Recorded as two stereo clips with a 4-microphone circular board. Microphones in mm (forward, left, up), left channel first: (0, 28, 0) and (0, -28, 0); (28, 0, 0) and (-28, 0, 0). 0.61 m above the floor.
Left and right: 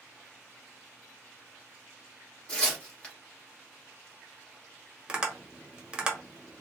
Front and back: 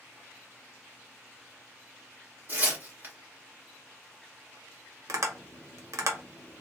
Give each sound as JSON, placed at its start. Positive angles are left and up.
{"t": 2.5, "sound": "tearing paper", "azimuth_deg": 155, "distance_m": 1.5}
{"t": 5.1, "sound": "tapping", "azimuth_deg": -160, "distance_m": 0.8}